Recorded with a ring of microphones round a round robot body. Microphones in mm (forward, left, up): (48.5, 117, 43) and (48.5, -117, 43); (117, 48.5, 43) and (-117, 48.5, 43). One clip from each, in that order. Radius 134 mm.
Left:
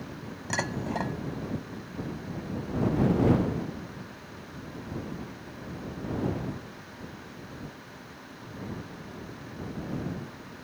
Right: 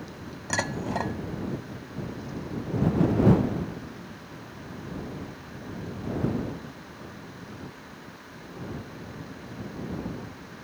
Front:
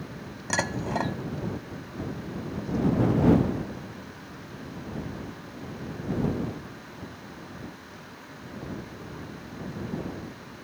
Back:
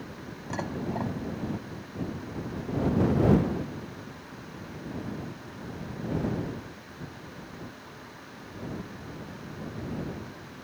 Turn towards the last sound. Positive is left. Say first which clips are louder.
# right 2 dB, front 6 dB
turn(degrees=-15)